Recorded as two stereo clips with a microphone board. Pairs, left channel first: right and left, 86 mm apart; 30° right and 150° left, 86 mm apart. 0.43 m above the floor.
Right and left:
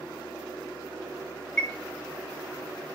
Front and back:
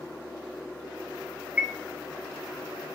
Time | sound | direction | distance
1.6 | a chime | 155° right | 1.2 m